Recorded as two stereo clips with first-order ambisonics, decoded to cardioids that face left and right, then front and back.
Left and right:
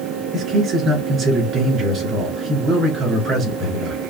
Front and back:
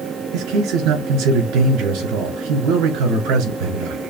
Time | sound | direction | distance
0.3 | a man speaking | 150° right | 3.5 m